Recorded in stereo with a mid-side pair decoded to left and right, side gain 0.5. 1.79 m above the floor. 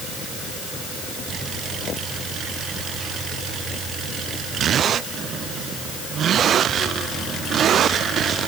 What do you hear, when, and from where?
Only background noise.